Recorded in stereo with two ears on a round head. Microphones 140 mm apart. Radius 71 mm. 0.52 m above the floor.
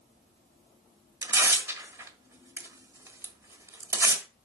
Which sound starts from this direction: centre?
Tearing paper, at 1.2 s.